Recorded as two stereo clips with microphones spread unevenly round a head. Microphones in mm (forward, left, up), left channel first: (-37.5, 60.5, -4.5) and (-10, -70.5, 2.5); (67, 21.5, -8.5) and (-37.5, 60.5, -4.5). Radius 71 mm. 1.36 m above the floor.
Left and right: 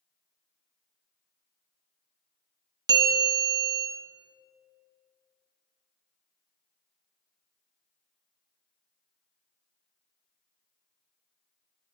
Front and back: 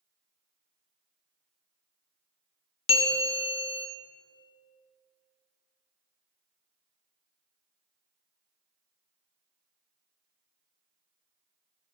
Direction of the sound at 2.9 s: 25° right.